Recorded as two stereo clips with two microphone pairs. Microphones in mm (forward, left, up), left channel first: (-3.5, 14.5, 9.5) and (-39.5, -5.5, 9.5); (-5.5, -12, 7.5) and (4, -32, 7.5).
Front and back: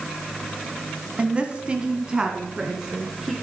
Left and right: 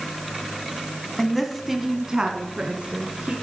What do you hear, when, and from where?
1.2 s a woman speaking: 165° right, 1.6 m; by 3.3 s 75° right, 2.5 m